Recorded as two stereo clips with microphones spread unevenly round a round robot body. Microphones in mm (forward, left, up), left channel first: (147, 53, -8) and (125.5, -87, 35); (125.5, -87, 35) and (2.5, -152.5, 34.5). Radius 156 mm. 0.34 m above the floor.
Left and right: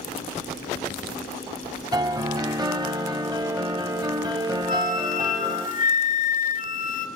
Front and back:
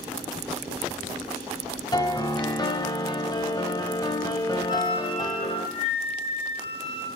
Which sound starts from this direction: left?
A flute, at 4.7 s.